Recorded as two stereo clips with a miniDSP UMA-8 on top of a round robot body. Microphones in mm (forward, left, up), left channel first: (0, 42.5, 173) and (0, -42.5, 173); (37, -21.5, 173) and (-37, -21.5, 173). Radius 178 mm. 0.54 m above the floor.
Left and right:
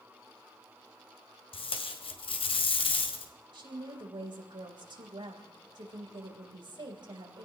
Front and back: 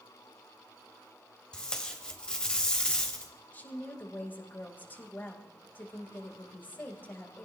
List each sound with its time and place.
1.5 s tape being pulled: 80° left, 1.5 m
3.5 s a woman speaking: 65° right, 3.5 m